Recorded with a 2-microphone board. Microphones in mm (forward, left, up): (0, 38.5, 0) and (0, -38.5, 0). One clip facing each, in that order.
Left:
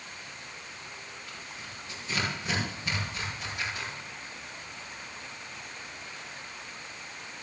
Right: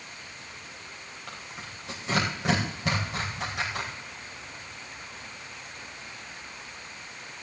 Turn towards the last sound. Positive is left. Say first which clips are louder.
# right 2 dB
turn(degrees=-90)